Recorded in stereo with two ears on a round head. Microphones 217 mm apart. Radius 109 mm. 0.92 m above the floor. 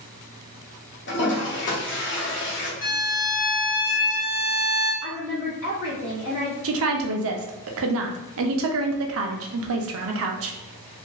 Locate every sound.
1.1 s a toilet flushing: 50° left (ahead or behind), 0.9 m
2.8 s a violin: 55° left (ahead or behind), 1.0 m
5.0 s a woman speaking: 55° left (ahead or behind), 1.6 m
6.6 s a woman speaking: 60° right (ahead or behind), 0.5 m